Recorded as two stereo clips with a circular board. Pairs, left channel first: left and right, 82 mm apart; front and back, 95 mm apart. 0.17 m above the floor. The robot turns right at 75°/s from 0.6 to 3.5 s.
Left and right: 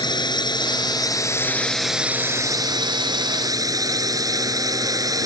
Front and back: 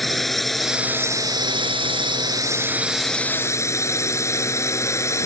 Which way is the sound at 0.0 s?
90° left.